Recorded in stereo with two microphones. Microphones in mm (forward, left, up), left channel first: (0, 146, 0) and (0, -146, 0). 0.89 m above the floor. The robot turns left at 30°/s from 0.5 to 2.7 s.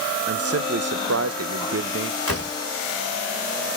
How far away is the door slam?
About 2.0 m.